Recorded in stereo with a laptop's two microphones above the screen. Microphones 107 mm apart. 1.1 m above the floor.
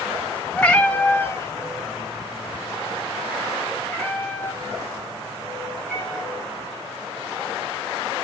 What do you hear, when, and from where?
0.6 s a cat meowing: 10° left (ahead or behind), 2.0 m; by 6.7 s 15° left (ahead or behind), 5 m